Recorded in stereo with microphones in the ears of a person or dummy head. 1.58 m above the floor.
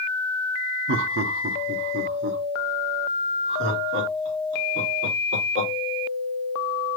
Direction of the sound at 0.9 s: 60° right (ahead or behind).